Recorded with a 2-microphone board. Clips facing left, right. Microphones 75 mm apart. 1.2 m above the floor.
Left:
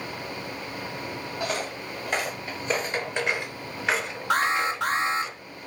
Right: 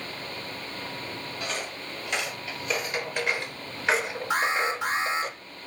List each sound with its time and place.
1.4 s footsteps: 45° left (ahead or behind), 2.5 m; by 5.3 s 40° right (ahead or behind), 1.6 m
4.3 s an alarm: 70° left (ahead or behind), 3 m